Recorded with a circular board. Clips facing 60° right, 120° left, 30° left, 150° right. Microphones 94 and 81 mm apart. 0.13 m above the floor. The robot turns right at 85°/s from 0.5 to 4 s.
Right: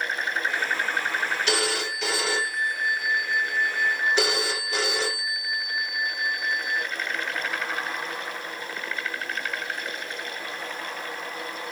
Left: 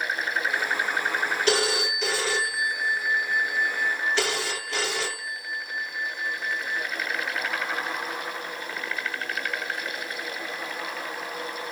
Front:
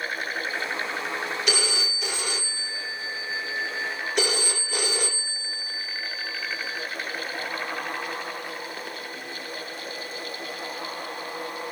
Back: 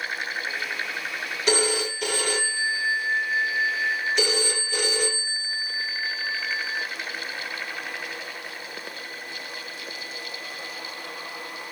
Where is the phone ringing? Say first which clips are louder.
Left 2 dB, back 5 dB; 155° left, 1.9 m; by 6.8 s 15° left, 1.9 m.